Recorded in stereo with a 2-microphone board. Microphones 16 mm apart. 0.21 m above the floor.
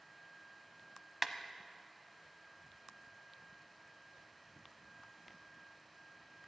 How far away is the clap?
About 0.8 m.